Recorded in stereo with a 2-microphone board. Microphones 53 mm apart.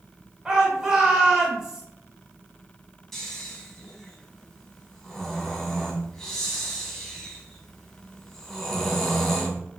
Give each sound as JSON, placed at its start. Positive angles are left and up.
{"t": 0.5, "sound": "a shout", "side_deg": -15, "distance_m": 0.9}
{"t": 3.1, "sound": "snoring", "side_deg": 10, "distance_m": 1.2}